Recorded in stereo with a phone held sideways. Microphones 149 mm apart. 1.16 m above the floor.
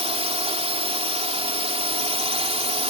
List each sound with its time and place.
0.0 s a drone: 40° right (ahead or behind)